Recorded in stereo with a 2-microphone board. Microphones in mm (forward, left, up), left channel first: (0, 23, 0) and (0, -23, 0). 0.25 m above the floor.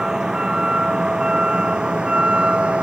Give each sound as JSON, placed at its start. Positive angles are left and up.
{"t": 0.0, "sound": "a vehicle", "side_deg": -15}